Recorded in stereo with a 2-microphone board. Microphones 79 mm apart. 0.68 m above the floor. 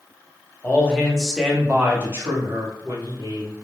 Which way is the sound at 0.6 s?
25° left (ahead or behind).